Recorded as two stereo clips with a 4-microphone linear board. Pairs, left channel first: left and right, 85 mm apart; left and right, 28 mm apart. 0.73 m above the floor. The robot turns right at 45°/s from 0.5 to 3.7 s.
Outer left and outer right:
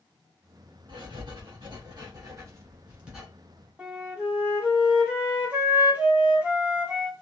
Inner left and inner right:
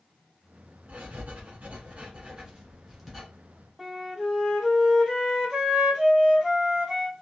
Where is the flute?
15° right (ahead or behind), 1.5 m.